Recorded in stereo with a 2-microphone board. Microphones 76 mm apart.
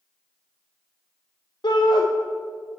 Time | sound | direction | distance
1.6 | a shout | 75° left (ahead or behind) | 0.6 m